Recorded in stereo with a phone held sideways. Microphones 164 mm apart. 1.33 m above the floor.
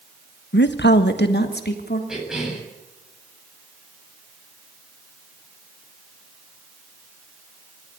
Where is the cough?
5° right (ahead or behind), 8 m.